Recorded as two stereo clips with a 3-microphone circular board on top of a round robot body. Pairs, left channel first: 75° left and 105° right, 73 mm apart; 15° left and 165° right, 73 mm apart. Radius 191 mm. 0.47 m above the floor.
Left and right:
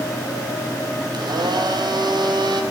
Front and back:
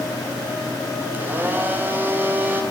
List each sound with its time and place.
1.1 s a blender: 100° right, 5 m